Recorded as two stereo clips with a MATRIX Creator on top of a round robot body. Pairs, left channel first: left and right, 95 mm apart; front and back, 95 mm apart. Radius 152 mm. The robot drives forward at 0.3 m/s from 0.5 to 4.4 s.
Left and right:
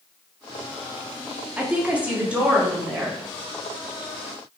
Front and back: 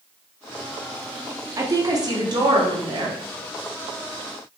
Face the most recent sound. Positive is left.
turn(degrees=-170)